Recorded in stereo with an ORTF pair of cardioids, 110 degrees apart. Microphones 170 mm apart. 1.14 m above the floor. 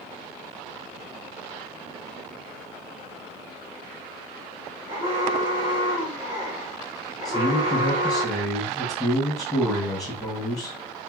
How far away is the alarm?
About 1.2 m.